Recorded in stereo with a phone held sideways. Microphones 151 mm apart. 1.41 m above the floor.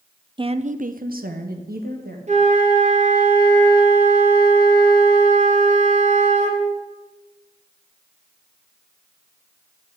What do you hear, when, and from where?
0.4 s a woman speaking: 30° right (ahead or behind), 0.6 m; by 2.2 s 90° right, 2.0 m
2.3 s a flute: 50° right (ahead or behind), 2 m